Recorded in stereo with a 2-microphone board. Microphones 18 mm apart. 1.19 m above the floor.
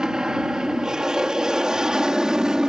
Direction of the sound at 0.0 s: 35° right (ahead or behind).